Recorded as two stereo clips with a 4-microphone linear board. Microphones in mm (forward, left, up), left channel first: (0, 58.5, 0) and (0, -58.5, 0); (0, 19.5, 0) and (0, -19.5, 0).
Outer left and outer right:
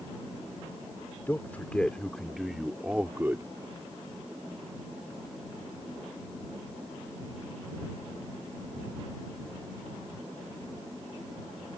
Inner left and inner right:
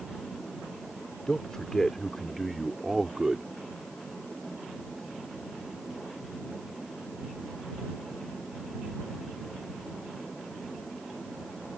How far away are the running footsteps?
No running footsteps in this recording.